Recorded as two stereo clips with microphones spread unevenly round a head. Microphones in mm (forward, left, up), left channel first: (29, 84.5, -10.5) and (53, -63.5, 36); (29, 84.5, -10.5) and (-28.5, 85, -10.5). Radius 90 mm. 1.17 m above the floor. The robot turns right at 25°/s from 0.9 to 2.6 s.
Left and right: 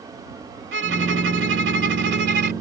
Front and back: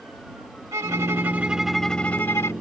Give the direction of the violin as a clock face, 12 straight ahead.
4 o'clock.